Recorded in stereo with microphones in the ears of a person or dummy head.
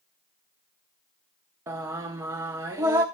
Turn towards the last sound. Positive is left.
turn(degrees=-15)  # may be behind; listen again after turning